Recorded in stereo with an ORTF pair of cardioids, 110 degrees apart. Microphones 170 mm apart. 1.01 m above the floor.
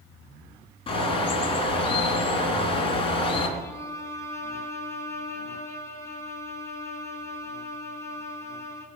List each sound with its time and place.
0.9 s a bird: 35° left, 3.5 m
3.6 s a violin: 15° left, 3 m